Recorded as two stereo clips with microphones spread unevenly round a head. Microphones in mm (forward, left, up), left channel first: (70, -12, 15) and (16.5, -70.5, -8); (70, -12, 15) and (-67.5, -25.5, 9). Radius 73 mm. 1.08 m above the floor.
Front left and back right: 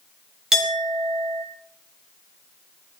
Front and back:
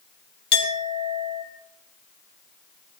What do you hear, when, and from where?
0.5 s a clink: 45° right, 3 m